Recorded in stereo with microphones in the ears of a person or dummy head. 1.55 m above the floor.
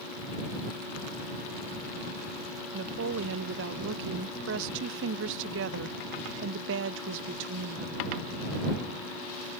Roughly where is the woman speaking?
Right.